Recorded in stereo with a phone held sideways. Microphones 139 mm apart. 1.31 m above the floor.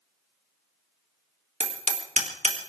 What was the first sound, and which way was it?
Hammering, 60° right (ahead or behind).